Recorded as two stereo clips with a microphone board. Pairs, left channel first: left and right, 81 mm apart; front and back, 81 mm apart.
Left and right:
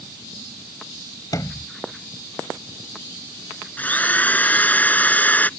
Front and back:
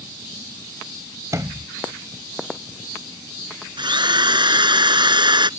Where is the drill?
160° left.